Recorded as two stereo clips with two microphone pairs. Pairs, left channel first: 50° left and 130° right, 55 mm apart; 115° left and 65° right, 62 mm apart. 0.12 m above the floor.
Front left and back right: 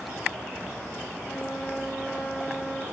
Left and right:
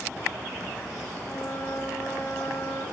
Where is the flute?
145° left, 9.5 m.